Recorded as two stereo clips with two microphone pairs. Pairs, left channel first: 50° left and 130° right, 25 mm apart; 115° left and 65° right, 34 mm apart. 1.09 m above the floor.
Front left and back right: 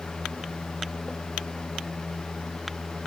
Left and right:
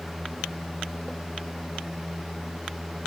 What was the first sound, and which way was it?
Only background noise.